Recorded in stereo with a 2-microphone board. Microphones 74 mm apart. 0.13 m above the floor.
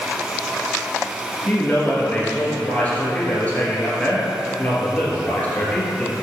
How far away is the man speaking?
About 2.5 m.